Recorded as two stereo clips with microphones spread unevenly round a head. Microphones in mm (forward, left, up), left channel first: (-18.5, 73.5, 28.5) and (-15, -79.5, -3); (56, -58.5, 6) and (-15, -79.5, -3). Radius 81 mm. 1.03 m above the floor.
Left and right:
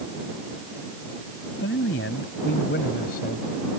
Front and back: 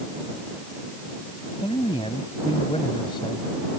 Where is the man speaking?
70° left; by 3.5 s 55° left.